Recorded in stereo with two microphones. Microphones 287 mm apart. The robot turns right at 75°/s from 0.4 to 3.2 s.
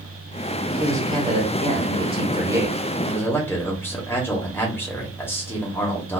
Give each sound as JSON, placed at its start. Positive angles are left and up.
{"t": 0.8, "sound": "a man speaking", "side_deg": -10, "distance_m": 1.2}